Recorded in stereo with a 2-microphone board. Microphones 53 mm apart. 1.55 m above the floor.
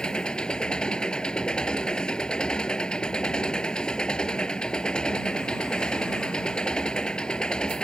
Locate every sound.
0.0 s an engine running: 15° left (ahead or behind)